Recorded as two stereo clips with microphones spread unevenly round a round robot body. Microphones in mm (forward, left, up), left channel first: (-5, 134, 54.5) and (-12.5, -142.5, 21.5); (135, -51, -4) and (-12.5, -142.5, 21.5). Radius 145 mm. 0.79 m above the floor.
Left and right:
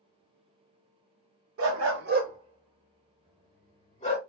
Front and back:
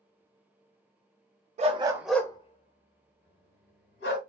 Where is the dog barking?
125° right, 0.6 m; by 4.2 s 20° left, 1.5 m.